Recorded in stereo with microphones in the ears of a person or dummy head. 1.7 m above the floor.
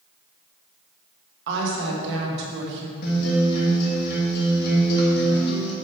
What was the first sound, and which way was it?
A woman speaking, 65° right (ahead or behind).